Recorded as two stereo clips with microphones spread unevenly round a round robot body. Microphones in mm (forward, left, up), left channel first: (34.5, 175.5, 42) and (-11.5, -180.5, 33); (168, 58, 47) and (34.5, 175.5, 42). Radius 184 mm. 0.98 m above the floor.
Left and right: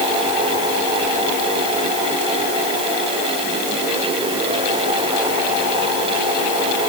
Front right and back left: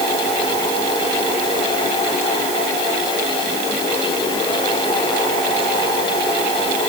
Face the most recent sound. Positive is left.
No sound to turn to.